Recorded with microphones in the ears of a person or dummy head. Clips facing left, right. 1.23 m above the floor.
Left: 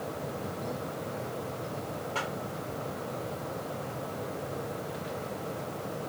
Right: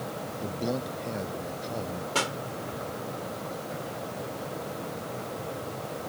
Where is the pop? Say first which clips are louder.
Right 6 dB; 55° right (ahead or behind).